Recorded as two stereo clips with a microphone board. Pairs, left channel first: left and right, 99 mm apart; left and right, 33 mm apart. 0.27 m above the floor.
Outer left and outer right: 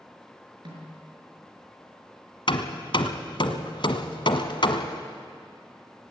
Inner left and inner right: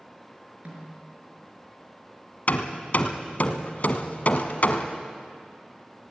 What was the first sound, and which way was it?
A snare drum, 55° right (ahead or behind).